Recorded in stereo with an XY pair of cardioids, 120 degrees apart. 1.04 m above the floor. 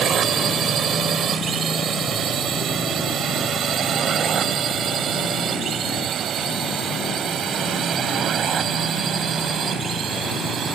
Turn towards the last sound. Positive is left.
turn(degrees=-45)